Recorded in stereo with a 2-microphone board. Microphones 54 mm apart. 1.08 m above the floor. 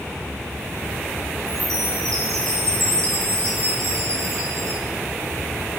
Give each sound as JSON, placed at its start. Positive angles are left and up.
{"t": 1.5, "sound": "a chime", "side_deg": -70, "distance_m": 5.0}